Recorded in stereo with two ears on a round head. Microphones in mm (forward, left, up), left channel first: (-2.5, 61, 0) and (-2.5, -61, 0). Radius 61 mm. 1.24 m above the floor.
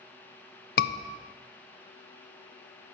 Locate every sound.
0.8 s a scream: 75° left (ahead or behind), 0.8 m